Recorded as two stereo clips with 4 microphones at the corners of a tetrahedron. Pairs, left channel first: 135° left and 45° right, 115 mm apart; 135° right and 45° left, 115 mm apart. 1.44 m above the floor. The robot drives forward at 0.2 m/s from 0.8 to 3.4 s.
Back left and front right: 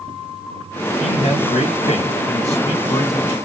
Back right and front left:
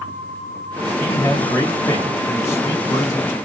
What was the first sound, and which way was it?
A man speaking, 155° left.